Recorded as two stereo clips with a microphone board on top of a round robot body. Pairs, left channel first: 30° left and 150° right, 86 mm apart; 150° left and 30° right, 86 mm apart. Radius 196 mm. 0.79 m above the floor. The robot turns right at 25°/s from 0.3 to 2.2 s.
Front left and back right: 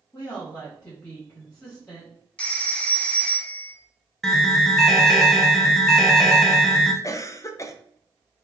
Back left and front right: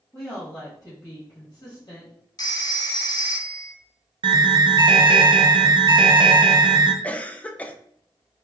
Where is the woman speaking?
80° left, 1.6 m; by 2.1 s 125° left, 1.6 m.